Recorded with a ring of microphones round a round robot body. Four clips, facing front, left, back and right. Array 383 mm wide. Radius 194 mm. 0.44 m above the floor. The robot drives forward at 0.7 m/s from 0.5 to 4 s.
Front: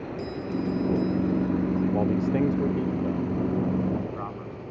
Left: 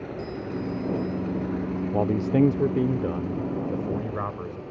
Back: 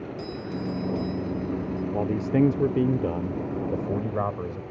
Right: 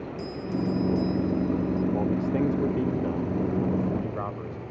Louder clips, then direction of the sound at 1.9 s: Left 3 dB, even; 90° left.